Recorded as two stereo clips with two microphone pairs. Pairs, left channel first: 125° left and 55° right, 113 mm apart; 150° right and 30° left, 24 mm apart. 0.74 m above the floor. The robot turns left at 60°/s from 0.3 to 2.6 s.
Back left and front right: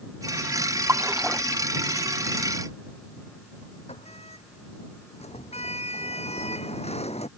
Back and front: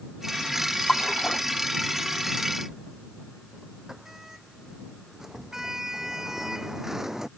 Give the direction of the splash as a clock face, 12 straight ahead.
4 o'clock.